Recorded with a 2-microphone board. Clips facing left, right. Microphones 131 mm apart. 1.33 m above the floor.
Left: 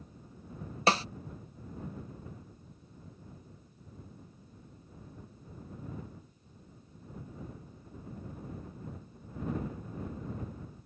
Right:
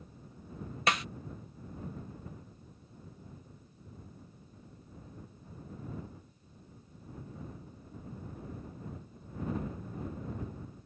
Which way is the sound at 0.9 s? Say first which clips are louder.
Left 4 dB; 30° left (ahead or behind).